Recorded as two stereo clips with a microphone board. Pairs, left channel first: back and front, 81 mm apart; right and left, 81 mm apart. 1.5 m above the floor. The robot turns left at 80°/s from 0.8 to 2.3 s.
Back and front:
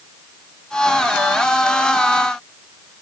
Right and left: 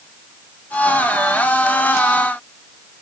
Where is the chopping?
No chopping in this recording.